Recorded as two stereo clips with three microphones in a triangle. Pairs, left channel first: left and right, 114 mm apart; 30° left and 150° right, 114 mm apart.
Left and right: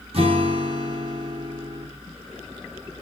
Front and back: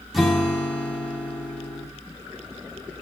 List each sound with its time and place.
0.1 s a guitar: 60° right, 1.4 m